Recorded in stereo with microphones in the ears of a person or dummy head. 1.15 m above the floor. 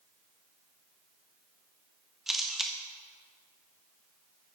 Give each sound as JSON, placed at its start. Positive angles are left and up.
{"t": 2.3, "sound": "a camera shutter", "side_deg": 0, "distance_m": 0.6}